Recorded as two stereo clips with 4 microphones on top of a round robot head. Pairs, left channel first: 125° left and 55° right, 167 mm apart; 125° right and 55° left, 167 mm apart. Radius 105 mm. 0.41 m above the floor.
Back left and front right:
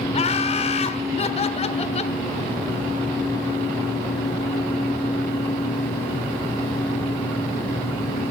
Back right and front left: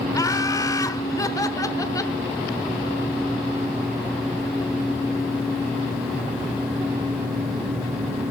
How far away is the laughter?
About 1.2 m.